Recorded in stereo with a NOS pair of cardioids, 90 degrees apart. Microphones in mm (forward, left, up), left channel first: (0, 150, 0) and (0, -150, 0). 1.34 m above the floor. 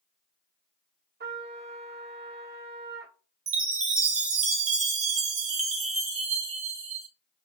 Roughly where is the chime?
Ahead right.